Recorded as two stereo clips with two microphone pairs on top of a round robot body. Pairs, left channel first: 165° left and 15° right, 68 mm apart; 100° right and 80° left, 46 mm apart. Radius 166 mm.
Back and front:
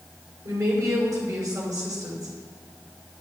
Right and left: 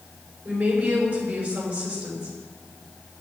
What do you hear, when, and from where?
0.5 s a woman speaking: 15° left, 5.5 m